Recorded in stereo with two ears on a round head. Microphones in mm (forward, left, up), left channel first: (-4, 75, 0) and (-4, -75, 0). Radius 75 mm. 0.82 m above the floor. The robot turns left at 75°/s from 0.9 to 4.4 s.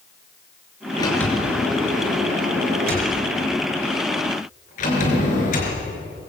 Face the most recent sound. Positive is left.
turn(degrees=130)